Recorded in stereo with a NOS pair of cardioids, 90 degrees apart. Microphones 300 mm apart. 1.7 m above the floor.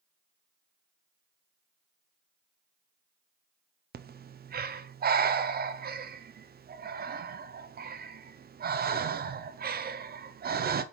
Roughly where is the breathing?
Ahead right.